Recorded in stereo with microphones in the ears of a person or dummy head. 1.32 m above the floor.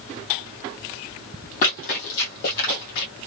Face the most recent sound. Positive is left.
turn(degrees=45)  # may be behind; listen again after turning